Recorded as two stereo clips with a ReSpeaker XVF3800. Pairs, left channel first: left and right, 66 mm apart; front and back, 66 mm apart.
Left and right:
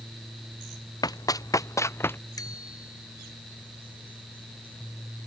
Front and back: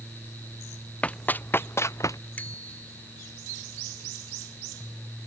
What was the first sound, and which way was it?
Running footsteps, 70° left.